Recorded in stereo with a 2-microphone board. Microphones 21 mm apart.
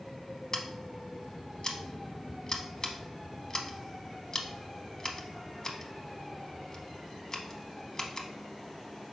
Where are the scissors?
30° left (ahead or behind), 0.7 m.